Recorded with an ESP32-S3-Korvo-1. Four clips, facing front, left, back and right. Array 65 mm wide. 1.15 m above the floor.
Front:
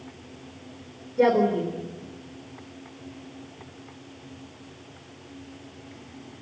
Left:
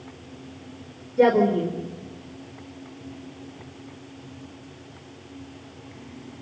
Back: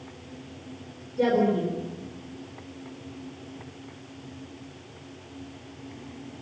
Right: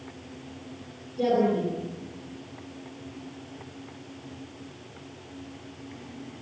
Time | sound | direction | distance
1.2 | a woman speaking | 65° left | 3.5 m